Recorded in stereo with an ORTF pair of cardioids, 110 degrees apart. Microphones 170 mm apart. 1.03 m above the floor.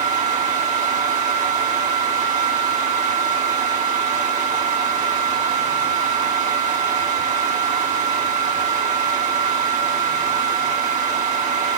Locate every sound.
0.0 s a fan: 50° right, 5.5 m